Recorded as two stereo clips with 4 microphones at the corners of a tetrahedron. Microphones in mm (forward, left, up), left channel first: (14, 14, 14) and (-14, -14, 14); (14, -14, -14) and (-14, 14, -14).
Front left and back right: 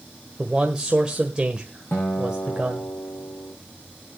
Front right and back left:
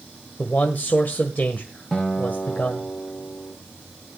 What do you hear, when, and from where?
0.4 s a man speaking: 70° right, 1.4 m
1.9 s a guitar: 30° left, 6 m